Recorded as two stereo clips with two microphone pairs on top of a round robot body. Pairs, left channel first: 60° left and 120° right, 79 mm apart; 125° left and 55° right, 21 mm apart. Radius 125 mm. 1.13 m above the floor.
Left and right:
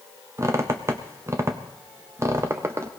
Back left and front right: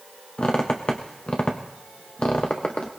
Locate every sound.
0.4 s a squeak: 170° left, 0.5 m